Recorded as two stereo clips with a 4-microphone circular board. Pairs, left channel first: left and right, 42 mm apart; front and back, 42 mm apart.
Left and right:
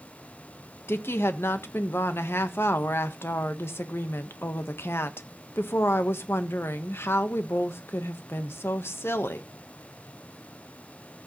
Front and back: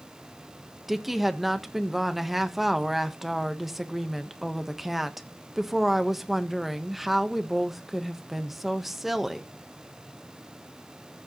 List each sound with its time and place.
0.9 s a woman speaking: 95° left, 1.1 m